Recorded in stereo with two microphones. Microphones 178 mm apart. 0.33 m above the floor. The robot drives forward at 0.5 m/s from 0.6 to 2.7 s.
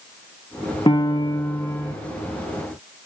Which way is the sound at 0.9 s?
30° left (ahead or behind).